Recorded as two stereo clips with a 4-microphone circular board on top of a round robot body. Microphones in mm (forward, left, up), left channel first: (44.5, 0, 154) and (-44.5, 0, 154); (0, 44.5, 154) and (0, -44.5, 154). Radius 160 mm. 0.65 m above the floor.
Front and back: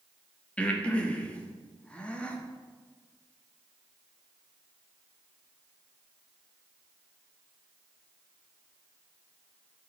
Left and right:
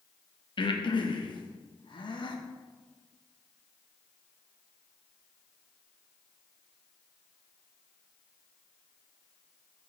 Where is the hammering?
No hammering in this recording.